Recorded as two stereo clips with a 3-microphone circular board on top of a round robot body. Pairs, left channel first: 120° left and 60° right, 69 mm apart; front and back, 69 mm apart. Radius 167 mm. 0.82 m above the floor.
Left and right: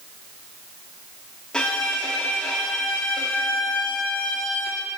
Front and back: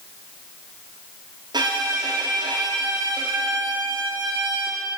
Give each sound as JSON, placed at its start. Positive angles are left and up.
{"t": 1.5, "sound": "a violin", "azimuth_deg": -160, "distance_m": 1.0}